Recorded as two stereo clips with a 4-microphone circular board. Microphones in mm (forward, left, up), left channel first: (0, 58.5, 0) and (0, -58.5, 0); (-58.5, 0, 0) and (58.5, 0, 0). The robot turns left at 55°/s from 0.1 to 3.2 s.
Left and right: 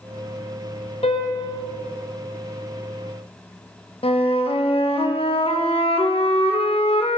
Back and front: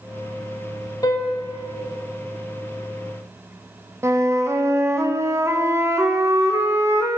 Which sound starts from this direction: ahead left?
A flute, at 4.0 s.